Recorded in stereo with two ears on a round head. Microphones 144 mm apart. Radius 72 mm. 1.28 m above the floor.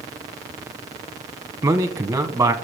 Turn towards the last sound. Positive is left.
turn(degrees=-20)  # may be behind; listen again after turning